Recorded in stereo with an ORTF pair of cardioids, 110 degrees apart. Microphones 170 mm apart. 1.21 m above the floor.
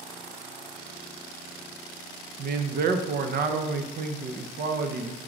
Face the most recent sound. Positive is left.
turn(degrees=-55)